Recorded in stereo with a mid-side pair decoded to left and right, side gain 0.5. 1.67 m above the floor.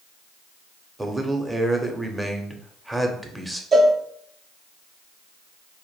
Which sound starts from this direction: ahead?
A man speaking, at 1.0 s.